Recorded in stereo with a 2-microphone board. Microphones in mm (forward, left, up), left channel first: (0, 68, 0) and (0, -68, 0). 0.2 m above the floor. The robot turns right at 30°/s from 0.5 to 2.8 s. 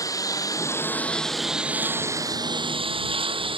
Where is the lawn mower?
25° left (ahead or behind); by 3.6 s 40° right (ahead or behind).